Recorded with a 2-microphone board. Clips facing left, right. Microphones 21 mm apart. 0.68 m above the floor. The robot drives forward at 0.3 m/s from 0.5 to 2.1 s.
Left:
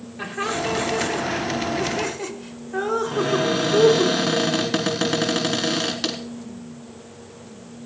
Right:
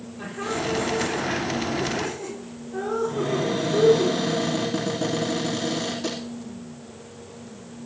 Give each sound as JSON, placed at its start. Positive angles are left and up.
{"t": 0.2, "sound": "laughter", "side_deg": 45, "distance_m": 3.0}
{"t": 3.1, "sound": "a cupboard door", "side_deg": 70, "distance_m": 3.5}